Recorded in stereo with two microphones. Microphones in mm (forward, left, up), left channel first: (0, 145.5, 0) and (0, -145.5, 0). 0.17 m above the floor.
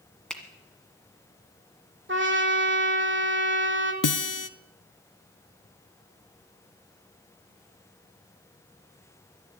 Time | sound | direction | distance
0.3 | a finger snap | 5° left (ahead or behind) | 1.5 m
2.1 | a trumpet | 40° right (ahead or behind) | 1.2 m
4.0 | a guitar | 80° left | 0.5 m